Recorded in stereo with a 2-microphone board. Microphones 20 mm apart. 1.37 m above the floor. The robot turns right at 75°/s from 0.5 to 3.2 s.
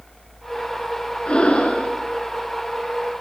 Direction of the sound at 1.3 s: 55° left.